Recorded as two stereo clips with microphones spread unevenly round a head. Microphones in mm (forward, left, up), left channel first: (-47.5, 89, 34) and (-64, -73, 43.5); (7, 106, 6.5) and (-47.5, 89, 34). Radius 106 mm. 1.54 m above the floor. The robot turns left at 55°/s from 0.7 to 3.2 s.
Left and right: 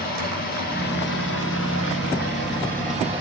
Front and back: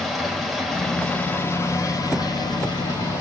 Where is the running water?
115° left, 5 m; by 3.2 s 20° right, 5 m.